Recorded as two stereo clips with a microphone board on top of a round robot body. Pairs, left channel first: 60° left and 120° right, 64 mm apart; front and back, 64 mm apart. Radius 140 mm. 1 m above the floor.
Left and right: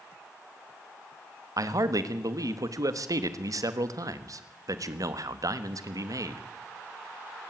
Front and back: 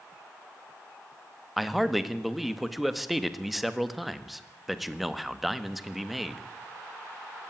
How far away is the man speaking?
About 1.5 m.